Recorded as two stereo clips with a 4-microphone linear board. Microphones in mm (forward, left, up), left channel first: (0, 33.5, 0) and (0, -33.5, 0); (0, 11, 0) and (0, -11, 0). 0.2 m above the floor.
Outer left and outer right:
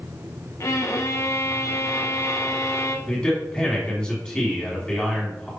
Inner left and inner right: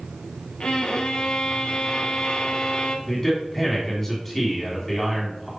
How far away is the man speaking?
About 1.7 m.